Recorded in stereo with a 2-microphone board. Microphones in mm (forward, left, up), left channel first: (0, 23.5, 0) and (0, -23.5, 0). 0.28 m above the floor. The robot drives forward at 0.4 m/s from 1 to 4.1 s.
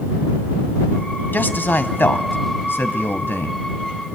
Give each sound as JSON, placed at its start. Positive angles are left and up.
{"t": 1.3, "sound": "a man speaking", "side_deg": 45, "distance_m": 1.6}